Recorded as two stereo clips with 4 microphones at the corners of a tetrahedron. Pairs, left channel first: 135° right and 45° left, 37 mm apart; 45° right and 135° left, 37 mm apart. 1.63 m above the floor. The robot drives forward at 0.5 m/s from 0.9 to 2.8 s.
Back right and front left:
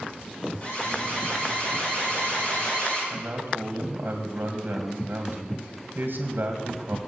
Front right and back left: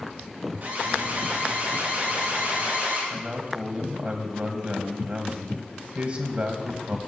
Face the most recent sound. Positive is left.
turn(degrees=85)